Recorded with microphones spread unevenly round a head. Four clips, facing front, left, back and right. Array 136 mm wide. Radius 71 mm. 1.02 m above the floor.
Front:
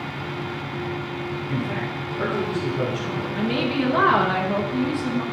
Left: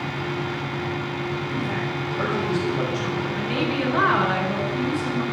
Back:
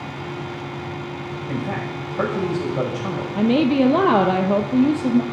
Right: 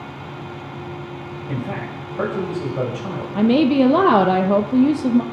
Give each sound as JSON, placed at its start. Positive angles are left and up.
{"t": 1.5, "sound": "a man speaking", "azimuth_deg": -145, "distance_m": 5.5}
{"t": 3.4, "sound": "a woman speaking", "azimuth_deg": -120, "distance_m": 0.7}